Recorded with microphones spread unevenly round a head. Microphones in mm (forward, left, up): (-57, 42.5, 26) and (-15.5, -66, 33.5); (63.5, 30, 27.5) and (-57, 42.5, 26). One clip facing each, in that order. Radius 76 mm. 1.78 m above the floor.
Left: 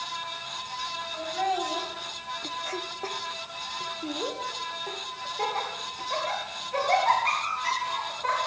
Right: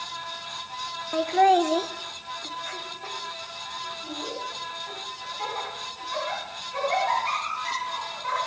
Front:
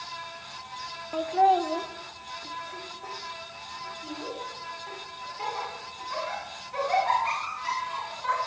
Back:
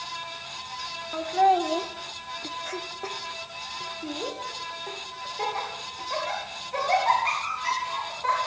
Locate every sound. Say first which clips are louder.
1.1 s laughter: right 10 dB, back 1 dB; 80° right, 1.2 m; by 8.5 s 135° left, 7 m